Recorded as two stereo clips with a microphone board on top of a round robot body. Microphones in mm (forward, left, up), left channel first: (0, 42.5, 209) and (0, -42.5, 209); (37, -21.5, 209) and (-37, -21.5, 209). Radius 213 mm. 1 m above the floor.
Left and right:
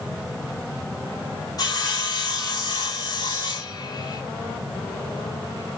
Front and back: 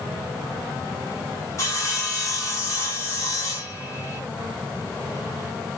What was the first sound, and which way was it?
Sawing, 50° left.